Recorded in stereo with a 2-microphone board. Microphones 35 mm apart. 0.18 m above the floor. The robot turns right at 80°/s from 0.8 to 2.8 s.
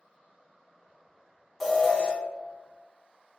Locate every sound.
1.6 s an alarm: centre (ahead or behind), 0.8 m; by 2.1 s 20° left (ahead or behind), 0.8 m